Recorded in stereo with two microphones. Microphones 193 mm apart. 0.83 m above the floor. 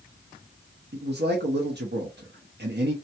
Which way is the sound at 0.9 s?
60° right (ahead or behind).